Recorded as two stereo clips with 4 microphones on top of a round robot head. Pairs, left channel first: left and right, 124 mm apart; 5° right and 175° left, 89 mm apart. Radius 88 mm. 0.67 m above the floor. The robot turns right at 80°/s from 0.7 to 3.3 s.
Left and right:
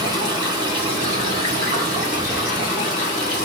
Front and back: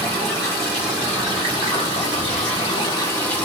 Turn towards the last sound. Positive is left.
turn(degrees=65)